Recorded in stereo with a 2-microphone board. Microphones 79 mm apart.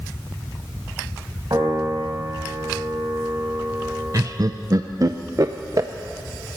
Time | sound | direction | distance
1.5 | a piano | 50° right (ahead or behind) | 4 m
4.1 | laughter | 45° right (ahead or behind) | 0.5 m